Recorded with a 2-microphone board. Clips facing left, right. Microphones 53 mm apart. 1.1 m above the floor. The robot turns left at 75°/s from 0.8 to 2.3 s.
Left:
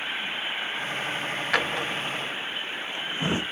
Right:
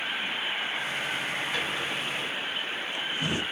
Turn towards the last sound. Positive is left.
turn(degrees=25)  # may be behind; listen again after turning